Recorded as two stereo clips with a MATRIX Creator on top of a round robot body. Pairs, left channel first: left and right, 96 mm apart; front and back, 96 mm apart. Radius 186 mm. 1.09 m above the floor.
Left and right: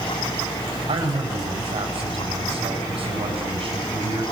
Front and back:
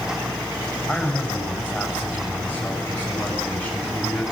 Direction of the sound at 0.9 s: 75° right.